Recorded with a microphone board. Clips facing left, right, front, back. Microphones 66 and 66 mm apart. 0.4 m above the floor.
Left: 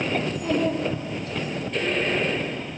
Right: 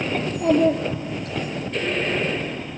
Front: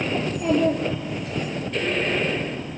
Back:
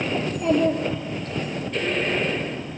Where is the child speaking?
90° right, 4 m; by 1.5 s 80° right, 4 m.